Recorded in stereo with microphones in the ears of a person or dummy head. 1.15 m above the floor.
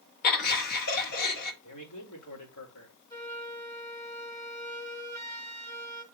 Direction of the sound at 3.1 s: 20° left (ahead or behind).